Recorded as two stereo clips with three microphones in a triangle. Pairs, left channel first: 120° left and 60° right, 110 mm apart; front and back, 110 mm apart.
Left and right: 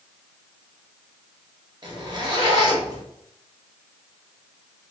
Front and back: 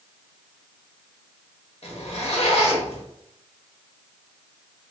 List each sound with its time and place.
1.8 s a zipper: 15° right, 1.0 m